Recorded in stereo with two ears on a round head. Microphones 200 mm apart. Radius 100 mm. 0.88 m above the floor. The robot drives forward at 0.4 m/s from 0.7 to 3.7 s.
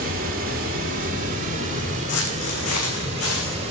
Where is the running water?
40° right (ahead or behind), 2.5 m; by 3.7 s 30° right (ahead or behind), 3.5 m.